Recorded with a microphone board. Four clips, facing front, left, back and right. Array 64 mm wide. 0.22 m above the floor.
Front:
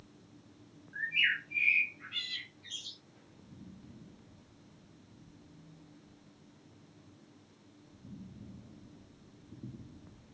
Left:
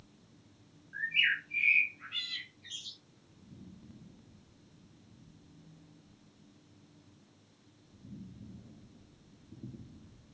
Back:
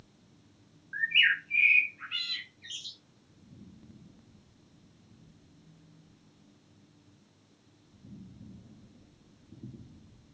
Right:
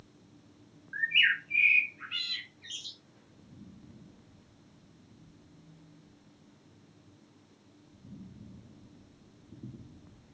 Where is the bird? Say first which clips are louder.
Right 4 dB, back 5 dB; 140° right, 0.7 m.